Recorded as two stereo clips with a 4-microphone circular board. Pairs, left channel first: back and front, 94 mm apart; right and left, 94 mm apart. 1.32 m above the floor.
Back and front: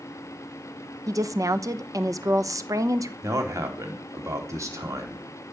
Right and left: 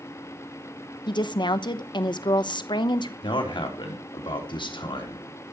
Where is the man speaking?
60° right, 3 m.